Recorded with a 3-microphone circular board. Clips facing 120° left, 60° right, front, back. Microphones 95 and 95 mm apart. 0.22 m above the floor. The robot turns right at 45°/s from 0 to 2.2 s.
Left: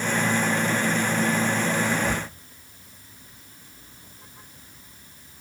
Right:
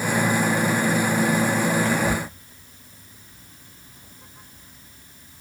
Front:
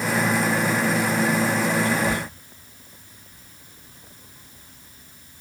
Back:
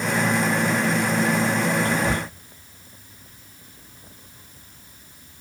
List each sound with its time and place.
1.9 s whispering: 160° right, 1.5 m; by 2.3 s 145° right, 1.5 m